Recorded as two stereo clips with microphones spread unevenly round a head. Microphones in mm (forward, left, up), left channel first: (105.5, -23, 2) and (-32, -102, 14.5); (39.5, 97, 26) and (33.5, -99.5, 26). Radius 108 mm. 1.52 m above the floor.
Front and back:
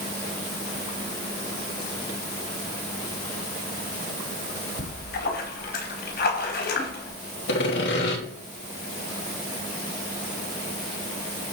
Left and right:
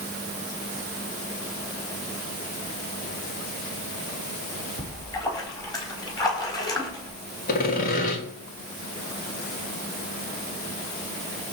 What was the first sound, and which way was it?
A splash, 20° left.